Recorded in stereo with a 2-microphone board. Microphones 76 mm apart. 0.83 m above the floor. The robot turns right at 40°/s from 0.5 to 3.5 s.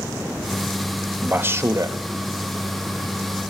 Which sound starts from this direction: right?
A man speaking, at 1.2 s.